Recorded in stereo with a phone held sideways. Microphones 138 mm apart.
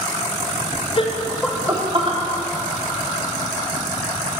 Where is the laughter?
40° left (ahead or behind), 0.6 m; by 2.2 s 45° right (ahead or behind), 0.9 m.